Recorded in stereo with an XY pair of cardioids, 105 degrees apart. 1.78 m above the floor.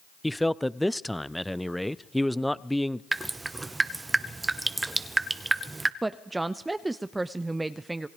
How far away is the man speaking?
About 0.7 m.